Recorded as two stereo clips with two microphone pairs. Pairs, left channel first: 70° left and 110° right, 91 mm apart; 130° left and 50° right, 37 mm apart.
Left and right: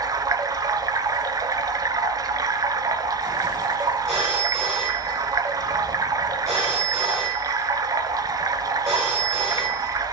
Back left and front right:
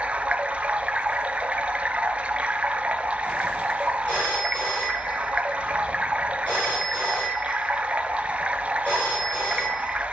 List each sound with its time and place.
0.0 s running water: 90° right, 1.0 m
4.1 s a phone ringing: 155° left, 6.5 m